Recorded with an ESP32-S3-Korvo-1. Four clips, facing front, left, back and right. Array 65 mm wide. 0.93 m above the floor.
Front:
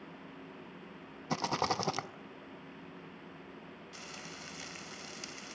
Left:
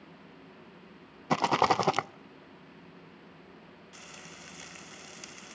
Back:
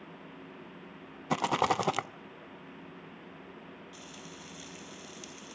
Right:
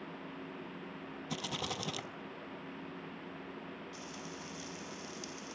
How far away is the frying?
About 3.5 m.